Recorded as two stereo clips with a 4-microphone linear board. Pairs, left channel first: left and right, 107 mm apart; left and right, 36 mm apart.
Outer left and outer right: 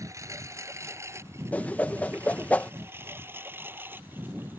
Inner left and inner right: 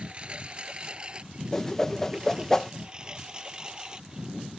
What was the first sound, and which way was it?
A lawn mower, 30° right (ahead or behind).